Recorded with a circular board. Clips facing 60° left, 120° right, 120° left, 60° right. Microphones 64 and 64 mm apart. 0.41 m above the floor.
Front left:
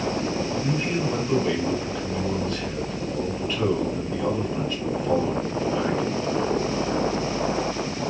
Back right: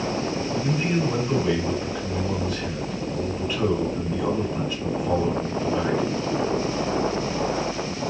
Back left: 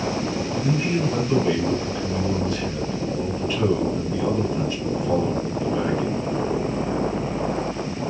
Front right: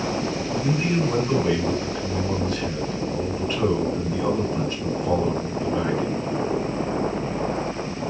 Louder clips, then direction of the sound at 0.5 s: Back right 1 dB, even; 40° right.